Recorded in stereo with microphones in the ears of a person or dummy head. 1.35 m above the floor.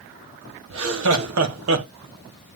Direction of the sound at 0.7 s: 85° right.